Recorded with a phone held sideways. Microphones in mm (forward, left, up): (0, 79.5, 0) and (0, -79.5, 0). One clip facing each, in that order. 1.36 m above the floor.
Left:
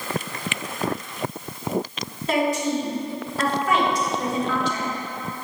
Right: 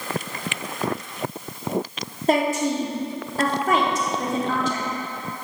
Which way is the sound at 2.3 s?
45° right (ahead or behind).